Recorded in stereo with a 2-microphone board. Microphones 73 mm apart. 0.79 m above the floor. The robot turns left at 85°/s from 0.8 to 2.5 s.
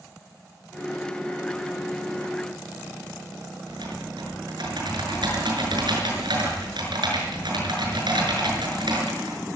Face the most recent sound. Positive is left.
turn(degrees=-80)